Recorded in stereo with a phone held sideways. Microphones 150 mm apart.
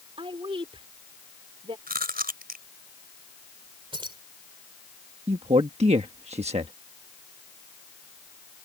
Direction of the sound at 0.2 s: 35° right (ahead or behind).